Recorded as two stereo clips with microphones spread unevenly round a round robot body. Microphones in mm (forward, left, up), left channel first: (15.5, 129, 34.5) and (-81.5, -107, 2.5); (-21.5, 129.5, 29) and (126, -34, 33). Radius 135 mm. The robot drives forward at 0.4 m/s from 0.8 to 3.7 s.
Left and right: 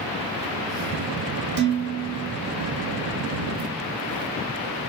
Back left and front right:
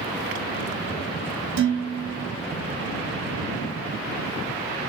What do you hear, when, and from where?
1.6 s dishes clattering: 75° right, 1.3 m; by 2.3 s 90° right, 1.2 m